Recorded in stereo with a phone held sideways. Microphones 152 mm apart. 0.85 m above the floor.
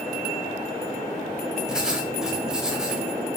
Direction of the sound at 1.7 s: 5° right (ahead or behind).